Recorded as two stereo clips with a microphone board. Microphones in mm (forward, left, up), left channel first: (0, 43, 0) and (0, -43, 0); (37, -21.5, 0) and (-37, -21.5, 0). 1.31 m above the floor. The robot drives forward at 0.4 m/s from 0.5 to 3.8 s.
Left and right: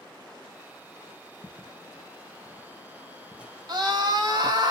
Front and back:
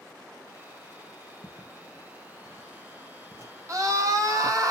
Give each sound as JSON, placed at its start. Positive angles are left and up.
{"t": 1.4, "sound": "footsteps", "azimuth_deg": 5, "distance_m": 1.5}
{"t": 3.7, "sound": "a scream", "azimuth_deg": -130, "distance_m": 1.6}